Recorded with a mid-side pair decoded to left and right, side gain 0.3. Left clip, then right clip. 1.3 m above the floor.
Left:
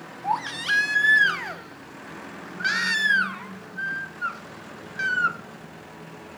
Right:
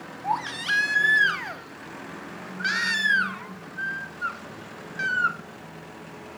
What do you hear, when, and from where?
0.2 s a baby crying: 15° left, 1.3 m